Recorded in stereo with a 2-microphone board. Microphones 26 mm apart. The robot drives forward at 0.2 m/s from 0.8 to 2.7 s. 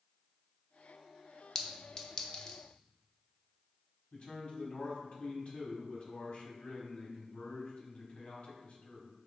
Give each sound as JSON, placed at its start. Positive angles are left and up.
{"t": 1.6, "sound": "a clink", "side_deg": 30, "distance_m": 0.5}
{"t": 4.1, "sound": "a man speaking", "side_deg": 45, "distance_m": 1.1}